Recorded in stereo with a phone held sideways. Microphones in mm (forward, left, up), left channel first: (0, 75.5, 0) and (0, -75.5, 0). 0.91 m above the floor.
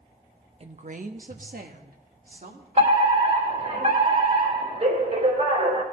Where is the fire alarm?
50° right (ahead or behind), 3.5 m.